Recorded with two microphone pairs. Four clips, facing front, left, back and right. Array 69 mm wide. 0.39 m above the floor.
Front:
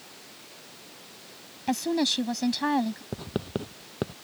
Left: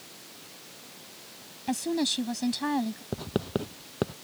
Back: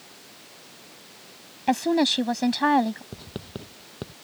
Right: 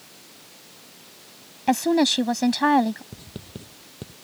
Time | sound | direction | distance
1.7 | a woman speaking | 125° right | ?
3.1 | writing | 60° left | ?